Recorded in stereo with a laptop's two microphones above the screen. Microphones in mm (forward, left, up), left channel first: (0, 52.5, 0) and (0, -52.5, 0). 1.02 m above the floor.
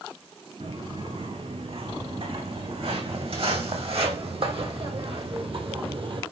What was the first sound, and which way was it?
Footsteps, 70° right (ahead or behind).